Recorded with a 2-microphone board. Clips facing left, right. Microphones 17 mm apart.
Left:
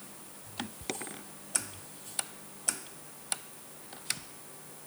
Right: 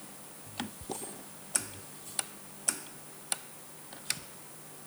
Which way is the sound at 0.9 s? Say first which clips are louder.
Left 2 dB; 70° left (ahead or behind).